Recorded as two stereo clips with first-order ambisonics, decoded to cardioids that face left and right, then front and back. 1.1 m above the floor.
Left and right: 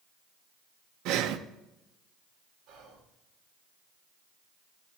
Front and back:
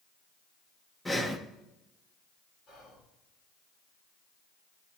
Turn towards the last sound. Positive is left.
turn(degrees=-60)